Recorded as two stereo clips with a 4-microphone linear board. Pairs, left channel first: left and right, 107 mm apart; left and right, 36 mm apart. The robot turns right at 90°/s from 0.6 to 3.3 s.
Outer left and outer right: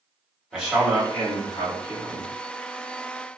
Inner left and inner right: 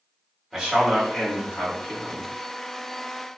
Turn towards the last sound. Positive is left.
turn(degrees=-125)